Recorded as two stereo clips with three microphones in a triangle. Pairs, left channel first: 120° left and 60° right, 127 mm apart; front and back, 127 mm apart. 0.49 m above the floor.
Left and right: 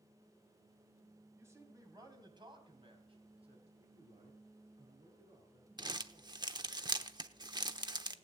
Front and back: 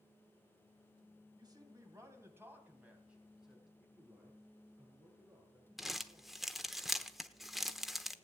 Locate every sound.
1.4 s a man speaking: 130° right, 3.5 m; by 3.7 s 90° right, 4 m
3.8 s a man speaking: 105° right, 6.5 m
5.8 s crumpling: 90° right, 0.9 m